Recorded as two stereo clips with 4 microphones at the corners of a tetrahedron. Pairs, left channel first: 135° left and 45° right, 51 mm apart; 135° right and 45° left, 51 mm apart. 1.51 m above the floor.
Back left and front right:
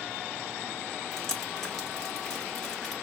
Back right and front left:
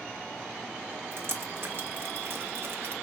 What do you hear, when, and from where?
1.1 s dripping: 60° left, 1.2 m